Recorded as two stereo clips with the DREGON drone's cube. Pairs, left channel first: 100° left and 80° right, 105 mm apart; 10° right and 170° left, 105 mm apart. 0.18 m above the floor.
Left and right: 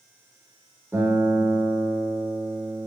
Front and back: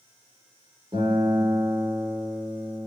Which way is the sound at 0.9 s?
150° right.